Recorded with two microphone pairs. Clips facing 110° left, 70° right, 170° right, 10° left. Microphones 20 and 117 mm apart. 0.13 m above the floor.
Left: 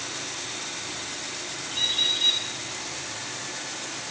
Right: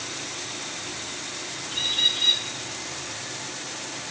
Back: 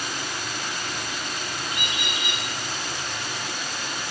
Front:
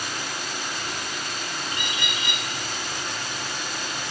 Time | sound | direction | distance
1.7 | a bird | 155° right | 2.5 m